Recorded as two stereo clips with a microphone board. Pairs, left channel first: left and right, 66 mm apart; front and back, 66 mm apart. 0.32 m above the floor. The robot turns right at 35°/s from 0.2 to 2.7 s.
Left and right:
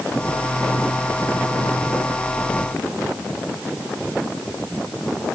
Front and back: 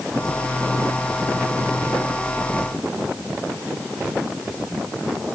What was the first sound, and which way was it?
Only background noise.